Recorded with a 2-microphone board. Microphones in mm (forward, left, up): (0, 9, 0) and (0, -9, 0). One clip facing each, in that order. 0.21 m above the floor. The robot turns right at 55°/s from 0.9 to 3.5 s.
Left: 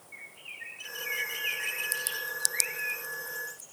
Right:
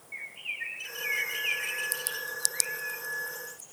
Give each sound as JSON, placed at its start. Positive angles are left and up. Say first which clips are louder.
{"t": 0.1, "sound": "a bird", "louder": "right 7 dB", "side_deg": -30, "distance_m": 0.5}